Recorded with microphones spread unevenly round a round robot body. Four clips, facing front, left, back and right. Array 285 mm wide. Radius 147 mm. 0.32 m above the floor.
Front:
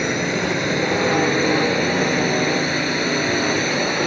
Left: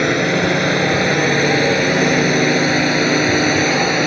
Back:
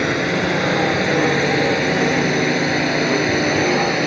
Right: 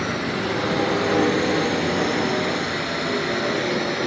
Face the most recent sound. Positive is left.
turn(degrees=100)